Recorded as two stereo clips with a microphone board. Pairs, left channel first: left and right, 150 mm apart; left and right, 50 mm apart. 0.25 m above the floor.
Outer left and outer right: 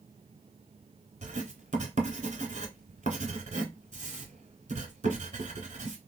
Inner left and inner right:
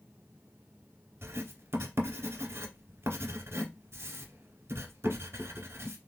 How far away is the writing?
About 1.0 m.